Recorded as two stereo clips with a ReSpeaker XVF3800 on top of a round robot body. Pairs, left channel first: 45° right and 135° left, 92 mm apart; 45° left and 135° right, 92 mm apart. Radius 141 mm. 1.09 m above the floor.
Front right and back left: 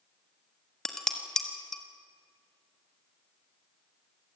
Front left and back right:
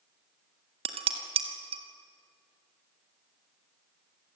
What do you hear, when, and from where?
0.8 s dishes clattering: 130° right, 1.5 m